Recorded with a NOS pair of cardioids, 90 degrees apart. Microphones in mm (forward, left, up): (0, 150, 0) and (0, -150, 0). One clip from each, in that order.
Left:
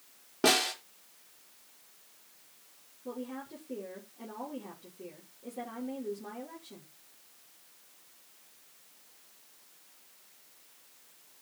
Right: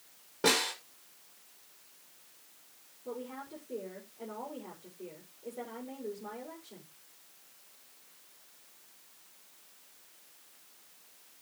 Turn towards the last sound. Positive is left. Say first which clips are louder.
# even
turn(degrees=55)